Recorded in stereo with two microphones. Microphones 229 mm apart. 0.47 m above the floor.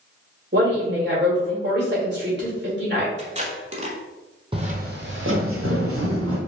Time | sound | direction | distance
0.5 | a woman speaking | 50° right (ahead or behind) | 1.9 m
3.2 | tape being pulled | 30° right (ahead or behind) | 0.9 m
4.5 | footsteps | 20° right (ahead or behind) | 0.8 m